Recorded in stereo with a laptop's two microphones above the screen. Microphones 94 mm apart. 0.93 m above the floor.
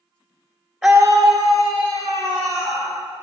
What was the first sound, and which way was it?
A scream, 5° right (ahead or behind).